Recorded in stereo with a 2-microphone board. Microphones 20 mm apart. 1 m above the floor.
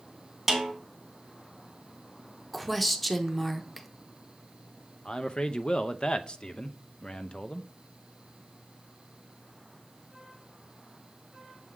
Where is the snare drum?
10° right (ahead or behind), 2.0 m.